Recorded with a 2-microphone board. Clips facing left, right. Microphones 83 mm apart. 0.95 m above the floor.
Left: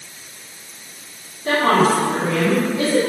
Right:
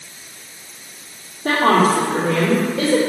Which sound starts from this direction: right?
A woman speaking, at 1.4 s.